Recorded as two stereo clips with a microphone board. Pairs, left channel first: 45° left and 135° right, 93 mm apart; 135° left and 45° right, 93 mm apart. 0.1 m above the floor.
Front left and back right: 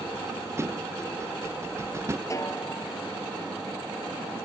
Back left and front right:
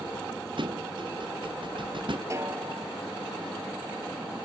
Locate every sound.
0.6 s a thud: 75° right
2.3 s a snare drum: straight ahead